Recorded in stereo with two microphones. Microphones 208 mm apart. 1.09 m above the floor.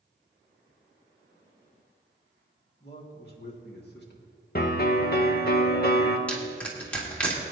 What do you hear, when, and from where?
2.8 s a man speaking: 55° left (ahead or behind), 2.5 m
4.5 s a piano: 45° left (ahead or behind), 1.0 m
6.3 s crushing: 5° left (ahead or behind), 2.5 m